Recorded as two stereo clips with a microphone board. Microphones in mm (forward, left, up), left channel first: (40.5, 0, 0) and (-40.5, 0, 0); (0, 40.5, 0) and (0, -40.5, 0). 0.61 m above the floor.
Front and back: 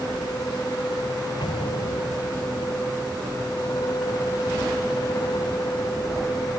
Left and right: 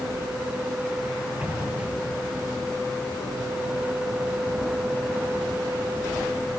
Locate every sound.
1.4 s an explosion: 15° right